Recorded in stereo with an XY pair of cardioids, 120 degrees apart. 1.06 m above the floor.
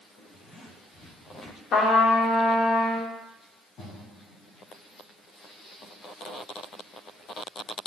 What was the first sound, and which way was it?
A zipper, 45° left.